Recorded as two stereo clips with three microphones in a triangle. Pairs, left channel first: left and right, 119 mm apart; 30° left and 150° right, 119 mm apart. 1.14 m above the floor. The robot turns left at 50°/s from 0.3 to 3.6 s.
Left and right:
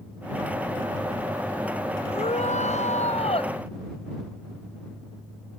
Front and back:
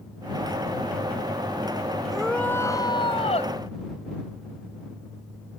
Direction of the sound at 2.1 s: 120° left.